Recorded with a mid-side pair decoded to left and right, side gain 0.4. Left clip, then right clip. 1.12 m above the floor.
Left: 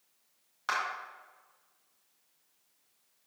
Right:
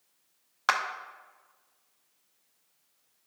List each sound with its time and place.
0.7 s a clap: 65° right, 0.9 m